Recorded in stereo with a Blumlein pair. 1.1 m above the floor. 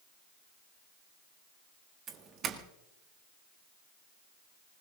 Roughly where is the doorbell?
Ahead right.